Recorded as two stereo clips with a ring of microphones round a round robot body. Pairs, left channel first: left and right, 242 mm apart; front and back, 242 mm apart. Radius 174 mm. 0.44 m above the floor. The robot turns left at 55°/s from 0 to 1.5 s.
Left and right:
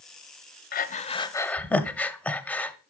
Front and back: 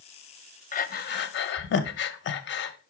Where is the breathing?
50° left, 0.6 m; by 2.8 s 5° left, 0.6 m.